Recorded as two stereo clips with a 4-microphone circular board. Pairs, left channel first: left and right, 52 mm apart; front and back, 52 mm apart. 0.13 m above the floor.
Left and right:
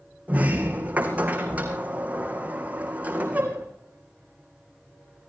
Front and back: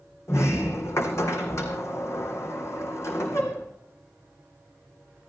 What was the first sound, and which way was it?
A sliding door, 30° right.